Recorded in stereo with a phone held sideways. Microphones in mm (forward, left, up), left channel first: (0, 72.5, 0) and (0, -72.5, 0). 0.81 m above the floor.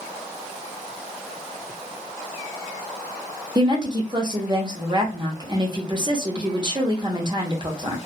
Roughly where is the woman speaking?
Right.